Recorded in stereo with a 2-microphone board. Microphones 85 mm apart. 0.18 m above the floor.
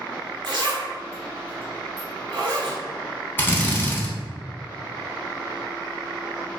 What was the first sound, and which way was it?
A zipper, 60° right (ahead or behind).